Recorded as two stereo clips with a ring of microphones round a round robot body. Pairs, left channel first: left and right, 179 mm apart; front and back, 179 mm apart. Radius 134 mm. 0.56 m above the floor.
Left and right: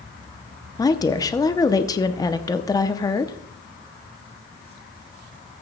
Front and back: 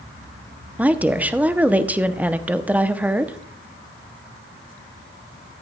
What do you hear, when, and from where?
0.8 s a woman speaking: 115° left, 0.6 m